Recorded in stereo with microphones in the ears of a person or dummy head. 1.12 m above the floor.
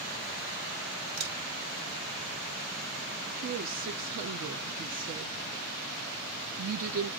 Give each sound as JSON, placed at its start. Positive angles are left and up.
{"t": 1.2, "sound": "a camera shutter", "side_deg": -70, "distance_m": 1.9}
{"t": 3.4, "sound": "a woman speaking", "side_deg": -50, "distance_m": 0.6}